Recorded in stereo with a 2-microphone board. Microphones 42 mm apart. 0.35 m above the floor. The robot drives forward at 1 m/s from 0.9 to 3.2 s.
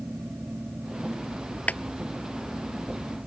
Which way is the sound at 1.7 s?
40° left (ahead or behind).